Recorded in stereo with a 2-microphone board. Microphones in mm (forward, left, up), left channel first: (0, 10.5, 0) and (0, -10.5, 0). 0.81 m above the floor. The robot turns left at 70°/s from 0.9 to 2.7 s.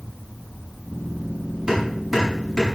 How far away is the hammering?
About 6.5 m.